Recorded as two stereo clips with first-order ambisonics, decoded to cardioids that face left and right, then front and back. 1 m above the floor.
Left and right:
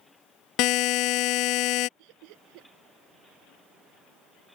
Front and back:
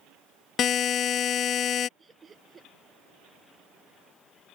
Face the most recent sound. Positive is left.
turn(degrees=-105)